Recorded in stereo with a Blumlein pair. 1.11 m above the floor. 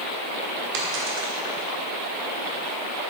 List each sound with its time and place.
0.7 s a dropped coin: 40° right, 1.5 m